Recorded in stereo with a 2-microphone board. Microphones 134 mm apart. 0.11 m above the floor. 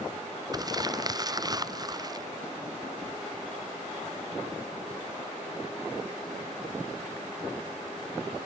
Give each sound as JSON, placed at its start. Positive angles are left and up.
{"t": 0.5, "sound": "crumpling", "side_deg": -30}